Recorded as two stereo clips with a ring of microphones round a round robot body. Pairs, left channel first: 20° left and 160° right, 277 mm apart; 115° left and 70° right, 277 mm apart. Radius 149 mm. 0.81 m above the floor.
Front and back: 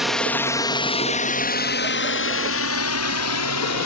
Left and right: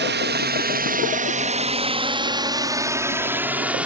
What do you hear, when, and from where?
0.0 s a drone: 70° right; by 3.9 s 20° left